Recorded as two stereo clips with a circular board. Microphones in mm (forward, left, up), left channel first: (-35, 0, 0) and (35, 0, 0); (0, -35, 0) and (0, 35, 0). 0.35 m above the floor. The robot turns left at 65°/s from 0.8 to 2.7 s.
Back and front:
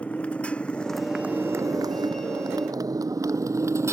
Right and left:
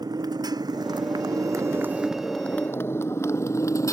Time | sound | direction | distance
0.0 | a motorcycle | 105° left | ?